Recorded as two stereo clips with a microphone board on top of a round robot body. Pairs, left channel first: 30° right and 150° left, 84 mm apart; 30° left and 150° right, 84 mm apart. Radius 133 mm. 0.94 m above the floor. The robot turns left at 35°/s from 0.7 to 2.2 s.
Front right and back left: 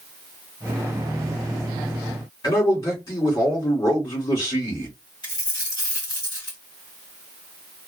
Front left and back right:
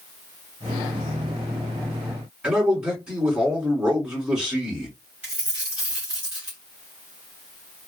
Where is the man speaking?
75° right, 2.5 m.